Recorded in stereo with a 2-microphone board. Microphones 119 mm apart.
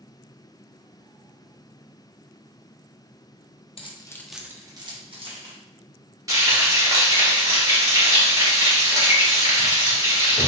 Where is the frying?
30° right (ahead or behind), 1.9 m.